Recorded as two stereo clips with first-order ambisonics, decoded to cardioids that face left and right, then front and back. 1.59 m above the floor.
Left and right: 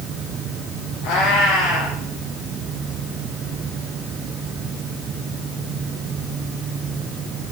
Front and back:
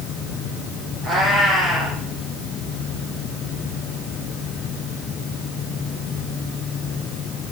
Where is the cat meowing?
110° left, 5 m.